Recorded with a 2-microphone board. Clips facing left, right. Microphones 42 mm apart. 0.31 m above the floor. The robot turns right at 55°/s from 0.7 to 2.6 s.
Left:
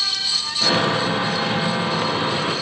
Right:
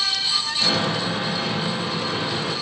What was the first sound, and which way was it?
Only background noise.